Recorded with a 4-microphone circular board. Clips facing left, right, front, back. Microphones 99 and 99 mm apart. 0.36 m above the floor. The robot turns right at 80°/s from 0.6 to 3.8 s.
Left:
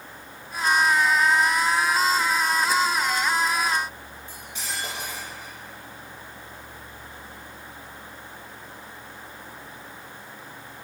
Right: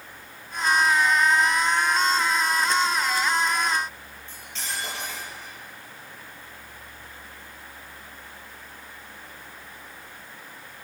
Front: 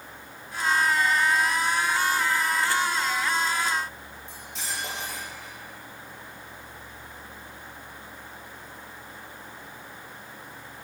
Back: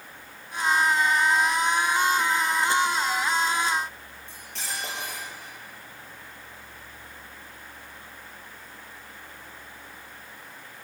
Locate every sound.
4.3 s cutlery clinking: 165° left, 5.5 m